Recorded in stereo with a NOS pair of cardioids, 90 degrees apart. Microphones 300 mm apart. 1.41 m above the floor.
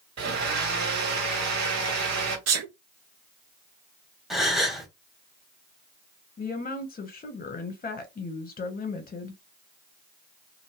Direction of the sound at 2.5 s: 60° right.